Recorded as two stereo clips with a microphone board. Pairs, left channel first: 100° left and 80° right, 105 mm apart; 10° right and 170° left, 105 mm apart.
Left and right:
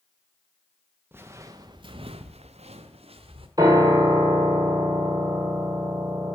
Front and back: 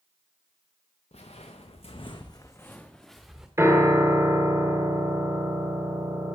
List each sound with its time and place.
1.1 s footsteps: 10° right, 0.8 m; by 3.5 s 105° right, 0.9 m
3.6 s a piano: 130° right, 1.0 m